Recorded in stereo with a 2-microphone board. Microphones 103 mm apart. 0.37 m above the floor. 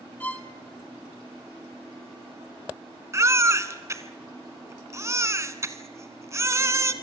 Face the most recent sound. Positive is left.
turn(degrees=-30)  # may be behind; listen again after turning